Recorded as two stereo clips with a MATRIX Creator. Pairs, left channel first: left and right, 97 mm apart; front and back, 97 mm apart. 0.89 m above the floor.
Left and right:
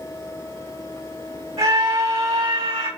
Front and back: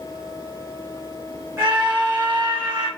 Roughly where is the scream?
Behind right.